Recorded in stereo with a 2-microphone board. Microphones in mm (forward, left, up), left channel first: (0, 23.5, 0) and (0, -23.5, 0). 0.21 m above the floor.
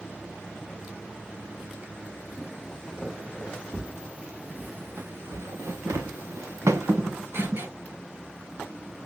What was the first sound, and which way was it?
Footsteps, 5° right (ahead or behind).